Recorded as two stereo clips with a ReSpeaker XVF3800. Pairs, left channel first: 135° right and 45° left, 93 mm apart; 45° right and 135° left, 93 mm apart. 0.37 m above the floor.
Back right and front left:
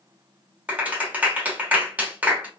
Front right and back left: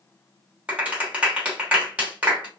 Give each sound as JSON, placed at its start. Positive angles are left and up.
{"t": 0.7, "sound": "a clap", "azimuth_deg": 85, "distance_m": 1.1}